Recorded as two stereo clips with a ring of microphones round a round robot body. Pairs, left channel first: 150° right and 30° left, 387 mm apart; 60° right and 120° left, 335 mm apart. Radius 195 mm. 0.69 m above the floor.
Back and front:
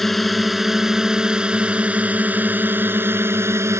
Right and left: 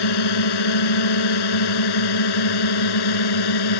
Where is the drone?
60° right; by 3.8 s 55° right.